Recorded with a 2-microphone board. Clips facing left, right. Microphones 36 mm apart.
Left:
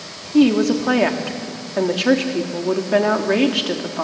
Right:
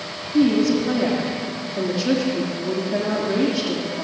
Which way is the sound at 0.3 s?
70° left (ahead or behind).